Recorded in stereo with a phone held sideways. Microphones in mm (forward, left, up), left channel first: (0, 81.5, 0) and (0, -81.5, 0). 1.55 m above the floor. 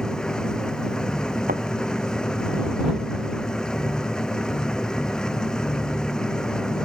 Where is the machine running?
5° left (ahead or behind).